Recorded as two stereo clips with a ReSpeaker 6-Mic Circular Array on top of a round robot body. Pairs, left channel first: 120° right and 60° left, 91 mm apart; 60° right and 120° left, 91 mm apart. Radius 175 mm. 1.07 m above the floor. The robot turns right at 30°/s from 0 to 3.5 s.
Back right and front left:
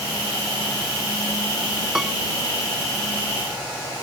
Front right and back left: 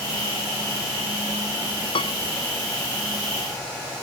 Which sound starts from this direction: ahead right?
A piano, at 1.9 s.